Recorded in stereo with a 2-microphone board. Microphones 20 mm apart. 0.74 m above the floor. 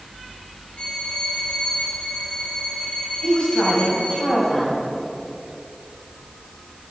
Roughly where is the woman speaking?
Left.